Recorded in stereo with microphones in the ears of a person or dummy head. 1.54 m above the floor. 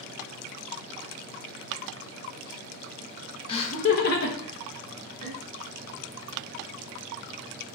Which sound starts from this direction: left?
Laughter, at 3.5 s.